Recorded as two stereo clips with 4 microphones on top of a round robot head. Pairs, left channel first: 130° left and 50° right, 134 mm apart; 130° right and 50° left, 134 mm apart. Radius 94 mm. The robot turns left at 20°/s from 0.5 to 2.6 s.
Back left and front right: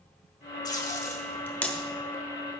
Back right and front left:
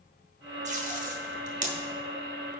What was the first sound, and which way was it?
Tape being pulled, 70° left.